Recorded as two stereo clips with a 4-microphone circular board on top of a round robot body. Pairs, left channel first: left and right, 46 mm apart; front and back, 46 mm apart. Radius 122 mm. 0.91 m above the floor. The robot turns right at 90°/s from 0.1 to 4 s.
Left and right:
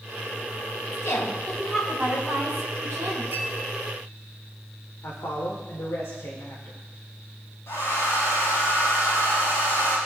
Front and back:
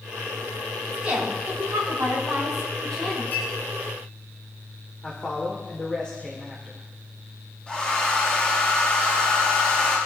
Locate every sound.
0.9 s a woman speaking: 105° left, 9.5 m; by 3.2 s 50° right, 9.5 m
3.3 s a clink: 45° right, 9 m; by 3.5 s 25° right, 9 m
5.0 s a man speaking: 65° left, 4 m
7.7 s a hair dryer: 65° left, 8.5 m